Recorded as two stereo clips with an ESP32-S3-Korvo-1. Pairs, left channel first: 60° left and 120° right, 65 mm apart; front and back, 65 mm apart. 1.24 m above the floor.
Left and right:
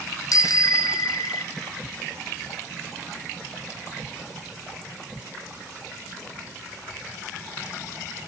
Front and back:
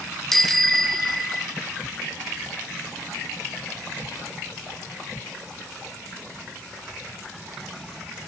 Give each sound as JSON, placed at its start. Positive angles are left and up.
{"t": 0.3, "sound": "a bicycle bell", "azimuth_deg": 85, "distance_m": 2.0}